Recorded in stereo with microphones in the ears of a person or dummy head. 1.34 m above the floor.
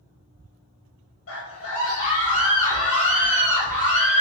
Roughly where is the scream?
Left.